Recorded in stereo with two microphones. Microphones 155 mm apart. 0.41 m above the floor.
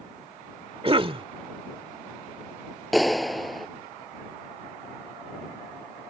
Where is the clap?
Centre (ahead or behind).